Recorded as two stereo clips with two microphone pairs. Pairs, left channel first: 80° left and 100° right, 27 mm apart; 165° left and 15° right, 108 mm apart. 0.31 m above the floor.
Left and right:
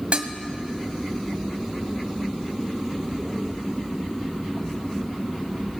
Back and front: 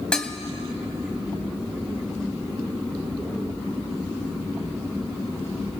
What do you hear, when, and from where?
0.1 s dishes clattering: 115° right, 1.2 m